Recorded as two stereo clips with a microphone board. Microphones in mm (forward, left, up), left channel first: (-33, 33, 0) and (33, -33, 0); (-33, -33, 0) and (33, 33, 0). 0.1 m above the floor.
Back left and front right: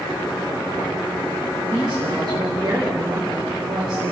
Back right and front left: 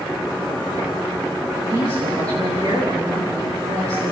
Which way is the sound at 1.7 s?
5° left.